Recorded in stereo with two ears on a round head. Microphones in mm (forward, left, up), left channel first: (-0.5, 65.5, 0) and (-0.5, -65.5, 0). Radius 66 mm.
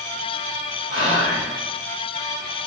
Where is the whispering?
55° left (ahead or behind), 1.7 m.